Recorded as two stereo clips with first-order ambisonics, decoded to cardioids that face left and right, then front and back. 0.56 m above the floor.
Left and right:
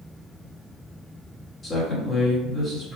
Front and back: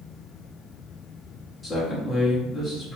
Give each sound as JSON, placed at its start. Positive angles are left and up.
{"t": 1.6, "sound": "a man speaking", "azimuth_deg": 70, "distance_m": 1.2}